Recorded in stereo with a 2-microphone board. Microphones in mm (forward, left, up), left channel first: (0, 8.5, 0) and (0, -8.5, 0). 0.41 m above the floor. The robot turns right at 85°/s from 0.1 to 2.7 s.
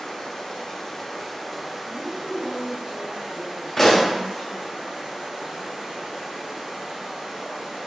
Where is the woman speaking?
10° left (ahead or behind), 0.9 m; by 4.8 s 20° left (ahead or behind), 0.9 m.